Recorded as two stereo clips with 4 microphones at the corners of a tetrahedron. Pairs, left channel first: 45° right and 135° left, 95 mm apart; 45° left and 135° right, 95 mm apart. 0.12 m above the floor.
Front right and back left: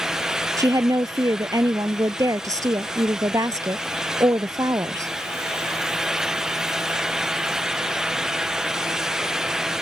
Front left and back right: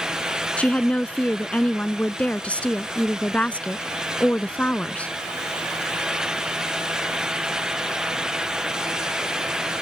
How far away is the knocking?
No knocking in this recording.